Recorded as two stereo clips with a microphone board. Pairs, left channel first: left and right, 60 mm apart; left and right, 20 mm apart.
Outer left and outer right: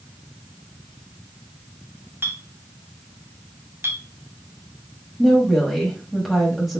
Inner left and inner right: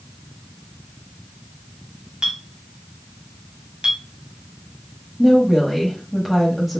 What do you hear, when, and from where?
2.2 s a clink: 40° right (ahead or behind), 1.0 m
5.2 s a woman speaking: centre (ahead or behind), 1.2 m